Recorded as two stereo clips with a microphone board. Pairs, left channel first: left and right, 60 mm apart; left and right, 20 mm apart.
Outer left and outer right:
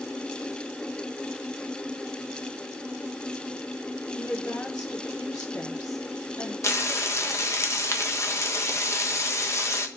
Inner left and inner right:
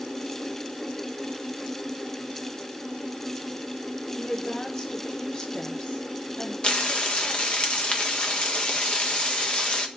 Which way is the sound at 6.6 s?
50° left (ahead or behind).